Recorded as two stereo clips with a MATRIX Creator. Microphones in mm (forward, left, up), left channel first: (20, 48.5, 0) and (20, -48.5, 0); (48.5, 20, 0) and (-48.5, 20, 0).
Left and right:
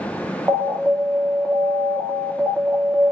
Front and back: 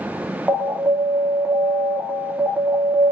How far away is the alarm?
About 1.3 m.